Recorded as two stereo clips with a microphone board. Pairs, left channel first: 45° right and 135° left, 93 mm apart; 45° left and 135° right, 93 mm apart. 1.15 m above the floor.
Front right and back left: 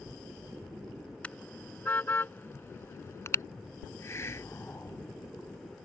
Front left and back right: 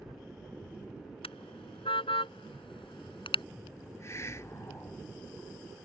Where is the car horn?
30° left; by 3.5 s 15° left.